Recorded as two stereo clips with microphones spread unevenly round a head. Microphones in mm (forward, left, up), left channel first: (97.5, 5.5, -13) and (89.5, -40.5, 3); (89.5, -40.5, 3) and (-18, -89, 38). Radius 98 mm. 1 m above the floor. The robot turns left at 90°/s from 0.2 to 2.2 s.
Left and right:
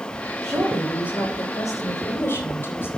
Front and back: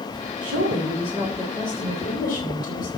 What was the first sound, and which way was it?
A woman speaking, 155° right.